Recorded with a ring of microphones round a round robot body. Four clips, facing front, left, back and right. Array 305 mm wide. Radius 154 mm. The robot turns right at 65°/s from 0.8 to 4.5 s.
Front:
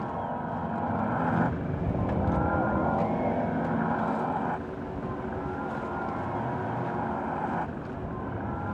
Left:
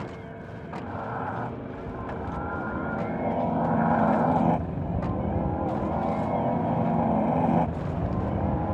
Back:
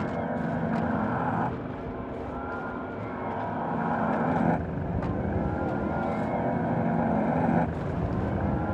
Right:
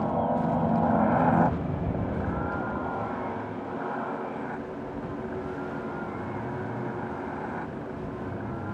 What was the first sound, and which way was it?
A helicopter, 115° right.